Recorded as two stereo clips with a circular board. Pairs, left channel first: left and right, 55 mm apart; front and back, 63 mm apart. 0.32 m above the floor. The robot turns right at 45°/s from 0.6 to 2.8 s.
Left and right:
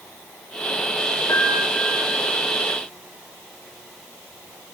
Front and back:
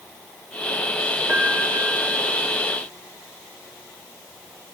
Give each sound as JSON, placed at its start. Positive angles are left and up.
{"t": 1.3, "sound": "a piano", "azimuth_deg": 110, "distance_m": 2.0}